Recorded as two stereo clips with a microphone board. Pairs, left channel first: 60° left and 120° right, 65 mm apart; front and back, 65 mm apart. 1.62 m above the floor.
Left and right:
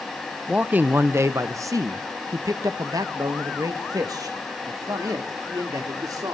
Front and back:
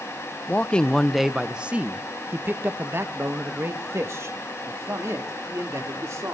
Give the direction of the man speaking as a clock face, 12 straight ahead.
2 o'clock.